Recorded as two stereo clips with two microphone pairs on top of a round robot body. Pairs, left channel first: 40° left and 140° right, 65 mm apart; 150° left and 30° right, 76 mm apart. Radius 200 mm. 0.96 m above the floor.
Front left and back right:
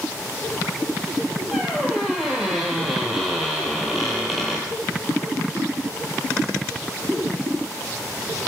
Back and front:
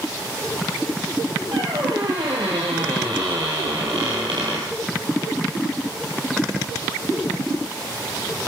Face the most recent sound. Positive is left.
turn(degrees=-50)